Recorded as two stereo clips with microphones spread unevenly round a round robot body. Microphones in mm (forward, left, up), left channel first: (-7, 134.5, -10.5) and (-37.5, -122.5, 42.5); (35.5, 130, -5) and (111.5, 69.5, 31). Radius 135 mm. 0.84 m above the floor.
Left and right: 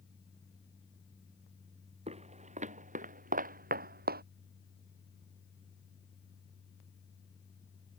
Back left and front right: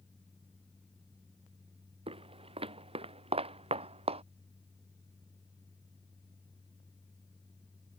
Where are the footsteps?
30° right; by 4.2 s 40° right.